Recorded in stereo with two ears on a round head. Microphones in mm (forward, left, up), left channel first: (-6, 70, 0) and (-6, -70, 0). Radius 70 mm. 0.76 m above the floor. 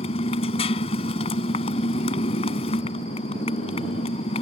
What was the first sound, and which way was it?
A motorcycle, 40° left (ahead or behind).